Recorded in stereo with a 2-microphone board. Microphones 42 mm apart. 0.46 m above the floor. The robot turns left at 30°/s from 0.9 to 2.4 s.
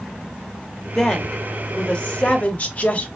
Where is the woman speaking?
165° left, 1.0 m; by 3.1 s 125° left, 1.0 m.